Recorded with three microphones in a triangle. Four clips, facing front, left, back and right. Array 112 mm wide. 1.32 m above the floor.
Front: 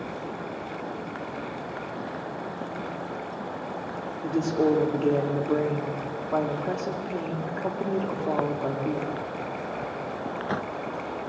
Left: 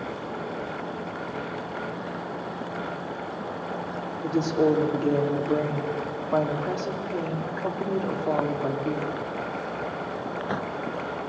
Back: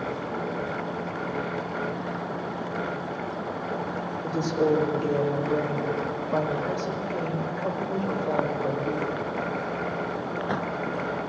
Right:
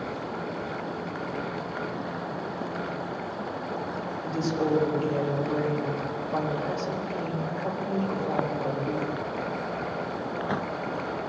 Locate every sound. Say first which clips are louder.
4.2 s a woman speaking: left 5 dB, front 1 dB; 55° left, 2.5 m